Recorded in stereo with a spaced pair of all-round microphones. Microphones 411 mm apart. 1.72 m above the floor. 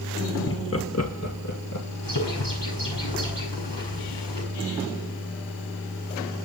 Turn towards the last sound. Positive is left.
turn(degrees=80)